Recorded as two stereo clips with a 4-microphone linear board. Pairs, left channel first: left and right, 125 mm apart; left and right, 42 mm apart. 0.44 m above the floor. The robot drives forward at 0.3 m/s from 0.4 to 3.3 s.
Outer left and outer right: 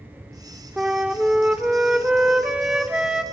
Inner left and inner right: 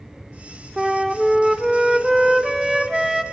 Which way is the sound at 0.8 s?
10° right (ahead or behind).